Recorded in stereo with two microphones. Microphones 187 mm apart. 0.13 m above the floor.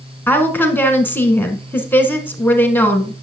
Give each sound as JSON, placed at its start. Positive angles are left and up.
{"t": 0.3, "sound": "a woman speaking", "side_deg": 10, "distance_m": 1.2}